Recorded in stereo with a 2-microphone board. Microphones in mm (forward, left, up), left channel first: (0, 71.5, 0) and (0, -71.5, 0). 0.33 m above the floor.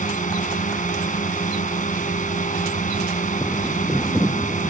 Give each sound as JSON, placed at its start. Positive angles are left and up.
{"t": 0.0, "sound": "a drone", "side_deg": 65}